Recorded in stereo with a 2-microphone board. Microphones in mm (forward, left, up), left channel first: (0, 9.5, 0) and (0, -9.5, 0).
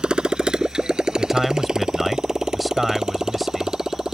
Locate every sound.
0.0 s a motorcycle: 55° right (ahead or behind); by 4.1 s 35° right (ahead or behind)
1.2 s a man speaking: 5° right (ahead or behind)